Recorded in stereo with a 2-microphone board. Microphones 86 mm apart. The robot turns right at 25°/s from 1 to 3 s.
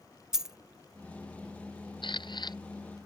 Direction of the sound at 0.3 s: 5° right (ahead or behind).